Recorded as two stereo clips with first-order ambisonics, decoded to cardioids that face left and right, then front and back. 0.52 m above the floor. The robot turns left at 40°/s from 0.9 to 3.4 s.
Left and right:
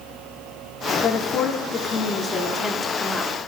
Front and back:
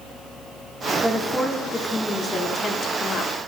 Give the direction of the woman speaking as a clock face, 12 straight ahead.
9 o'clock.